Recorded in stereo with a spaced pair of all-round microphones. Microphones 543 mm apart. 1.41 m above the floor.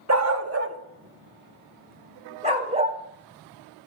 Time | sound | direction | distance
0.1 | a dog barking | 30° right (ahead or behind) | 0.9 m